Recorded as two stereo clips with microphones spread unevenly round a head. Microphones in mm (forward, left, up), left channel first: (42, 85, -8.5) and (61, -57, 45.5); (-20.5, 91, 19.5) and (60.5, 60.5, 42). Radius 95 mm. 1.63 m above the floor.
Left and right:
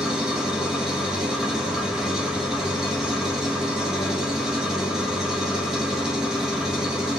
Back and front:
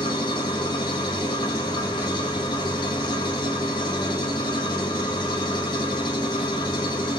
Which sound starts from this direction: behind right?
An engine running, at 0.0 s.